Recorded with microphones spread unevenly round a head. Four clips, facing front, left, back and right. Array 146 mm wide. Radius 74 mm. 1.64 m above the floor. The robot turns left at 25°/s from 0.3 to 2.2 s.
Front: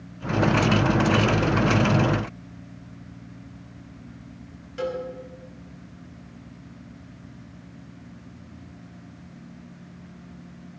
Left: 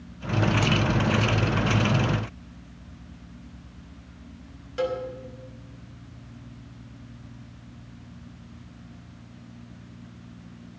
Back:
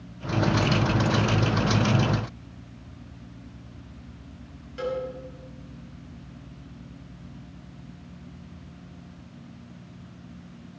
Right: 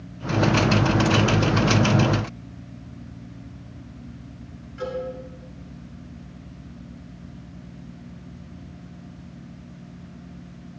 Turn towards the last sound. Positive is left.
turn(degrees=80)